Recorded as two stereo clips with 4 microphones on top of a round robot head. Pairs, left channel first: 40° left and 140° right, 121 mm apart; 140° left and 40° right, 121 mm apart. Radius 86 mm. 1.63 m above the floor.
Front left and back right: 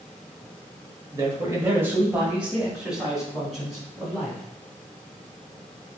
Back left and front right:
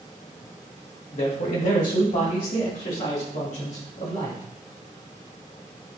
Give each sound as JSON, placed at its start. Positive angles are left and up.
{"t": 1.1, "sound": "a man speaking", "azimuth_deg": 165, "distance_m": 1.3}